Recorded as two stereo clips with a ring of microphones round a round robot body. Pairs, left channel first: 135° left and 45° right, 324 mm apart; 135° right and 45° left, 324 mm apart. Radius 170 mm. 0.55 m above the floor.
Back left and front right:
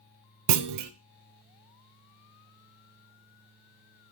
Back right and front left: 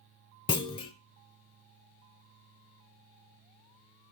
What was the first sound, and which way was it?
A clunk, 60° right.